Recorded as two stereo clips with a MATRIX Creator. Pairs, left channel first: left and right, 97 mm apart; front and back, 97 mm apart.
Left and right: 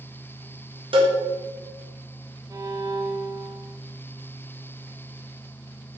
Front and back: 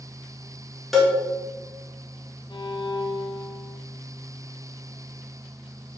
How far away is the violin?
About 0.6 m.